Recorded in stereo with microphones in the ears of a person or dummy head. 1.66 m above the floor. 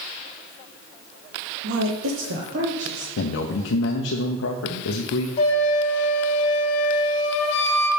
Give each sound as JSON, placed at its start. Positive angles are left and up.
{"t": 1.6, "sound": "a woman speaking", "side_deg": -65, "distance_m": 0.8}
{"t": 3.2, "sound": "a man speaking", "side_deg": 85, "distance_m": 0.7}
{"t": 5.4, "sound": "a flute", "side_deg": 45, "distance_m": 1.0}